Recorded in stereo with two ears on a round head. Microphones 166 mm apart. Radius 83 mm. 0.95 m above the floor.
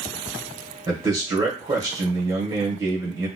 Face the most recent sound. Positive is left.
turn(degrees=-15)  # may be behind; listen again after turning